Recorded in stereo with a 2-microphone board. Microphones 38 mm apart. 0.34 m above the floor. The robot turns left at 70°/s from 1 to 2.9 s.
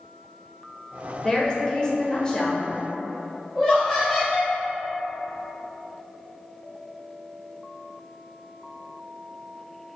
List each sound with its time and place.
1.2 s a woman speaking: 15° left (ahead or behind), 1.0 m
3.5 s laughter: 5° left (ahead or behind), 2.0 m